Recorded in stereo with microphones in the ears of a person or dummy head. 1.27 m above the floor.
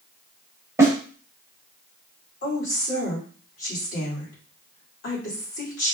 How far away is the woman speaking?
About 2.5 m.